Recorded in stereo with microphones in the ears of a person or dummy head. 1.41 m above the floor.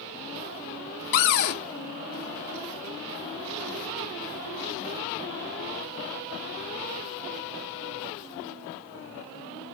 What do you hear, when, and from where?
1.1 s a cupboard door: 55° left (ahead or behind), 0.9 m